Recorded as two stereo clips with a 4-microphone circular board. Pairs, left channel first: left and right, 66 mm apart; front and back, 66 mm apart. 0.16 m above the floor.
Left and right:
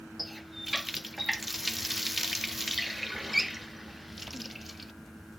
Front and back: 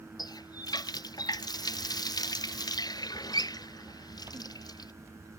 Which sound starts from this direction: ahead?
A running tap, at 0.2 s.